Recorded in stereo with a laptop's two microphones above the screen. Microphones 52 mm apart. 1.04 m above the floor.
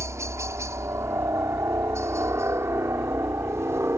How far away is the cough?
No cough in this recording.